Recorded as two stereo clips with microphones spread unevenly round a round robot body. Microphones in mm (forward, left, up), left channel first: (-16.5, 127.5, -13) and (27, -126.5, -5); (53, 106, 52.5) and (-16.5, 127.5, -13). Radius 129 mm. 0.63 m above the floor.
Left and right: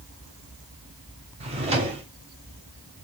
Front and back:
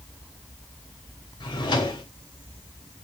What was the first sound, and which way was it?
A drawer, 15° right.